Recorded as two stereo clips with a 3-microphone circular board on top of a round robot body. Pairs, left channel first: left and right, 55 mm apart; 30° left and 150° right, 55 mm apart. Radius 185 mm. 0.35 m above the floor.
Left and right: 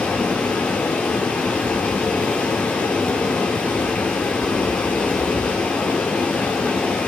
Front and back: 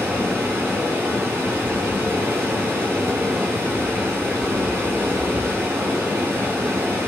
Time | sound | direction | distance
0.0 | running water | 160° left | 1.2 m